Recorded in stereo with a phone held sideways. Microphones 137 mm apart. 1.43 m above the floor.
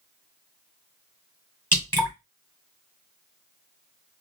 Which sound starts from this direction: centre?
Dripping, at 1.7 s.